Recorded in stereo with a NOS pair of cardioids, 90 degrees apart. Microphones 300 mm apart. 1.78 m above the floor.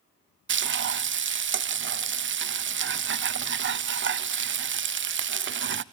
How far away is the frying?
About 0.9 m.